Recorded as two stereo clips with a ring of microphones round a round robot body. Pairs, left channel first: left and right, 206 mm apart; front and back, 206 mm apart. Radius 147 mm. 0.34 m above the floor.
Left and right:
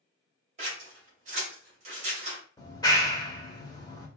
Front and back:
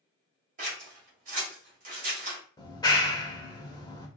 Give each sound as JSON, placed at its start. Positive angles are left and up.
{"t": 0.6, "sound": "scissors", "azimuth_deg": -140, "distance_m": 1.4}
{"t": 2.6, "sound": "a clap", "azimuth_deg": 45, "distance_m": 0.9}